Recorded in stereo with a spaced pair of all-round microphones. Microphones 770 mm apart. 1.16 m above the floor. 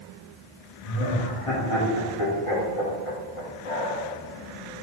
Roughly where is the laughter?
Left.